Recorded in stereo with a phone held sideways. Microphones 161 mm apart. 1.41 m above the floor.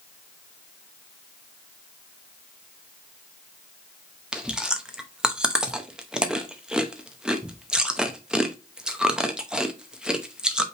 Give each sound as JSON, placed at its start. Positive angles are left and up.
{"t": 4.3, "sound": "chewing", "side_deg": -5, "distance_m": 0.8}